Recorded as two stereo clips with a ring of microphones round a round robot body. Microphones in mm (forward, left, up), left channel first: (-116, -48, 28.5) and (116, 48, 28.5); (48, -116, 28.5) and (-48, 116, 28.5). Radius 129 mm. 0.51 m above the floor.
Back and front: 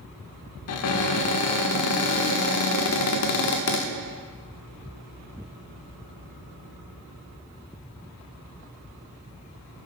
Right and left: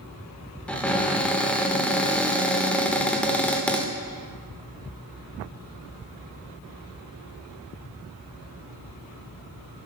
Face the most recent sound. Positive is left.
turn(degrees=-150)